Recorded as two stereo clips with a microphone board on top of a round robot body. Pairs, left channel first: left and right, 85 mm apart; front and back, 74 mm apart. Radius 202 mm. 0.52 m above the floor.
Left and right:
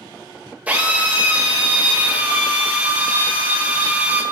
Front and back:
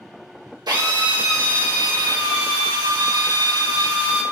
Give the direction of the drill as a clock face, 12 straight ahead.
5 o'clock.